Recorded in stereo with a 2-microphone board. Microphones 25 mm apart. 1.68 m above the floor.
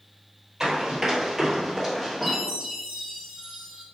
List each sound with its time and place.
0.6 s running footsteps: 20° right (ahead or behind), 1.8 m; by 2.4 s 5° left (ahead or behind), 1.6 m
2.2 s a chime: 5° right (ahead or behind), 1.9 m